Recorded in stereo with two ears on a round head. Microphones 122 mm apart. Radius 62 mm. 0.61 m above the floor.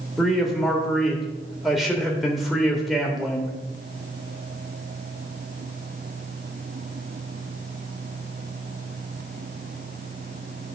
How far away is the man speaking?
About 1.8 m.